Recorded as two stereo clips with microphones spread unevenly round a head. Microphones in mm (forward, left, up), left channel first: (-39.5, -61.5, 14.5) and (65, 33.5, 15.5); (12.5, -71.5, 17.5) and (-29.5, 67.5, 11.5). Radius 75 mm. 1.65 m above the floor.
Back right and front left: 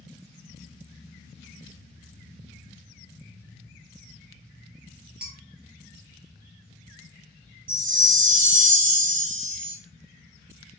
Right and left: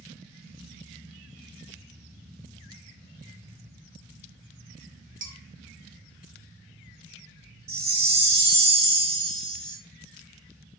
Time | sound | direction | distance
5.2 | dishes clattering | 125° left | 1.0 m
7.7 | a chime | 75° left | 1.6 m